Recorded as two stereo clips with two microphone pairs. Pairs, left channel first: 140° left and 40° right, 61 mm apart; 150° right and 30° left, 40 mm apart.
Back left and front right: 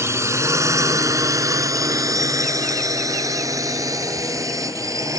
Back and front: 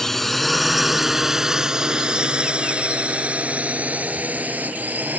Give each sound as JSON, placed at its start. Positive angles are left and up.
{"t": 0.0, "sound": "a drone", "azimuth_deg": -70}